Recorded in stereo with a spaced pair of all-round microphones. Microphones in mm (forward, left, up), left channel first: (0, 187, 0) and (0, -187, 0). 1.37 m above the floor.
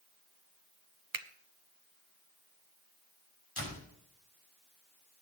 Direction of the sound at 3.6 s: 85° left.